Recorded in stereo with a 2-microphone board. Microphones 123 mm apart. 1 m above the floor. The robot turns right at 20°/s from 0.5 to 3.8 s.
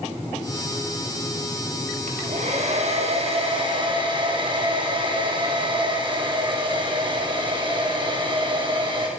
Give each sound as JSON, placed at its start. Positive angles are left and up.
{"t": 2.1, "sound": "a hair dryer", "azimuth_deg": -75, "distance_m": 5.5}